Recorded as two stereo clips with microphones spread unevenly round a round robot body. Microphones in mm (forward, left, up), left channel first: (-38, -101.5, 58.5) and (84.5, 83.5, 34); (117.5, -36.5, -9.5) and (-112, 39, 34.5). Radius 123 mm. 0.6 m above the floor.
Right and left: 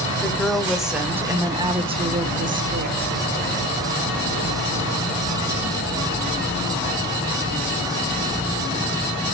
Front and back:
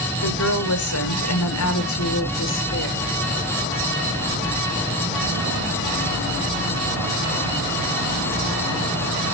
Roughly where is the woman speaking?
Ahead right.